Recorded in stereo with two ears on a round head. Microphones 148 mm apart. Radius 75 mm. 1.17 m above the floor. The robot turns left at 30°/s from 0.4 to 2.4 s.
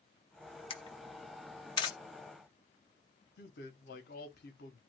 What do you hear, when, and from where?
0.7 s a camera shutter: 35° left (ahead or behind), 0.7 m; by 1.9 s 25° left (ahead or behind), 0.7 m
3.4 s a man speaking: 60° left (ahead or behind), 0.9 m